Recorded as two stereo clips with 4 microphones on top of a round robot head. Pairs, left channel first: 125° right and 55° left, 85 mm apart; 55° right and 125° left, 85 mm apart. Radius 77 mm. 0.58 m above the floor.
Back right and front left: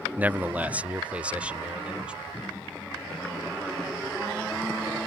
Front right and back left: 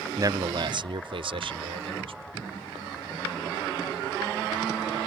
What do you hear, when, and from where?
0.2 s a man speaking: 115° left; by 2.3 s 135° left